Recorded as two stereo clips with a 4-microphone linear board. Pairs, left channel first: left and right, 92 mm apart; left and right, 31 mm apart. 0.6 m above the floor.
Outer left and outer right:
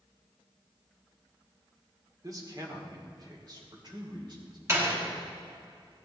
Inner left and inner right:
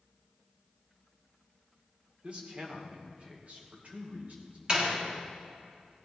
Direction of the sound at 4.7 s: 35° right (ahead or behind).